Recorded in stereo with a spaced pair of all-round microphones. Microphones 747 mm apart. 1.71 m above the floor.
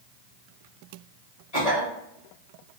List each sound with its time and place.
1.5 s a cough: 55° left (ahead or behind), 1.8 m